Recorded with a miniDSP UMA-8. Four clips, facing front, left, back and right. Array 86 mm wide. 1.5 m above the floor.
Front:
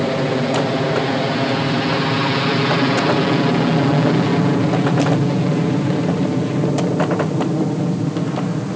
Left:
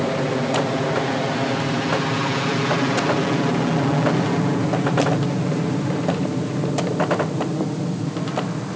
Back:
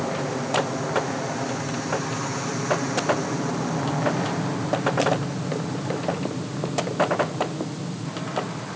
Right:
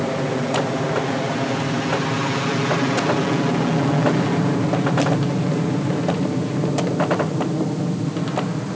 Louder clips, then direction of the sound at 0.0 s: Left 1 dB, front 8 dB; 10° left.